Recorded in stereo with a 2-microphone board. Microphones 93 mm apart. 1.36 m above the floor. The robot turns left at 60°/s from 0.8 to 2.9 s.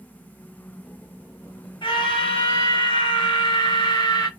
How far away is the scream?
About 1.4 m.